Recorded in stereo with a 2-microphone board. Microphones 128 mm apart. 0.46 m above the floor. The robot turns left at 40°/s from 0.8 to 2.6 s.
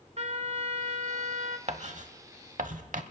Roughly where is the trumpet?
Ahead right.